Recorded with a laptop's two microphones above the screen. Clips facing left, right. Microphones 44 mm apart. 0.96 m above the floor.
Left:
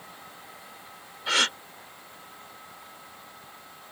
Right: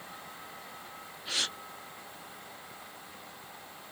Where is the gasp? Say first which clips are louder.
Left 10 dB; 80° left.